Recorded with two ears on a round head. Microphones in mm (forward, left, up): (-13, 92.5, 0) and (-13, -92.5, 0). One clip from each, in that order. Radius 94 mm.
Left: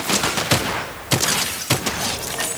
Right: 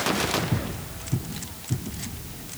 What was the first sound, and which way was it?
Only background noise.